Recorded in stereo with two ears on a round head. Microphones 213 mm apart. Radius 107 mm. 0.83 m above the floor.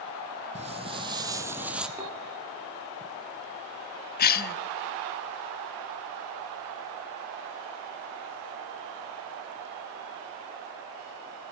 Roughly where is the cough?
Left.